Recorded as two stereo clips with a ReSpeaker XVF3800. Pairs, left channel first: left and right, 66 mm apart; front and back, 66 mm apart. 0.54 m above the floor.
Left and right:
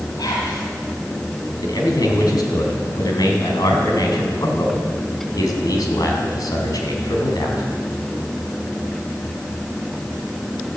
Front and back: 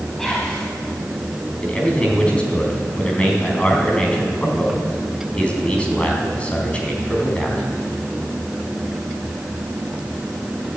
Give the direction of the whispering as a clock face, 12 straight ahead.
9 o'clock.